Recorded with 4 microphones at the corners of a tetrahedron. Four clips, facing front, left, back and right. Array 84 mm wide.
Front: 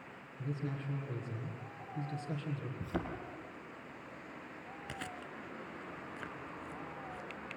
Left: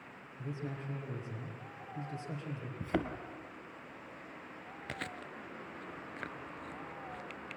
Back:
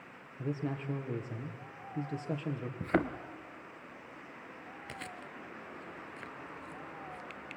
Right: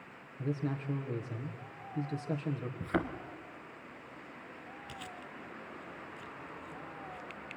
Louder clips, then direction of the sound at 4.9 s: Left 5 dB, front 1 dB; 95° left.